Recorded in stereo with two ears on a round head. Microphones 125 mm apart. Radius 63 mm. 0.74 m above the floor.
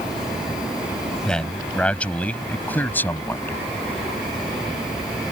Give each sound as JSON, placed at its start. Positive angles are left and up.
{"t": 1.2, "sound": "a man speaking", "side_deg": 5}